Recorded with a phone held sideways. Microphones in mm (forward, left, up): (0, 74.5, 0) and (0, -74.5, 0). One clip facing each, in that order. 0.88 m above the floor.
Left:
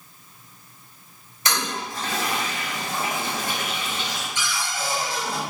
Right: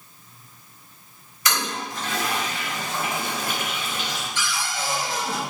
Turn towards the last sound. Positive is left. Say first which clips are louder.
# right 1 dB
turn(degrees=10)  # may be behind; listen again after turning